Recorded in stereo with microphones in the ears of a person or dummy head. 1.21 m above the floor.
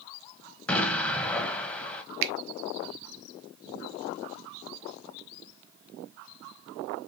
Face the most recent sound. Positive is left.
turn(degrees=-60)  # may be behind; listen again after turning